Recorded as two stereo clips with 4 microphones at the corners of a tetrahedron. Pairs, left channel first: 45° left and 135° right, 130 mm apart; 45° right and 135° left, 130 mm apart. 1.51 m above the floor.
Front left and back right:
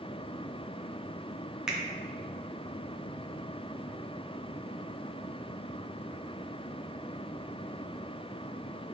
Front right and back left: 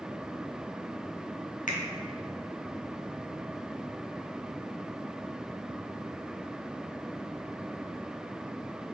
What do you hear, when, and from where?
1.7 s a finger snap: 50° right, 0.7 m